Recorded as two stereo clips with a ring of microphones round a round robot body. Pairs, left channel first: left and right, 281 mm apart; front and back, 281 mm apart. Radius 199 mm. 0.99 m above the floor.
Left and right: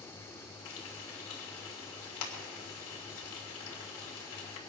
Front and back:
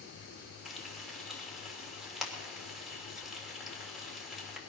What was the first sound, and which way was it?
Frying, 90° left.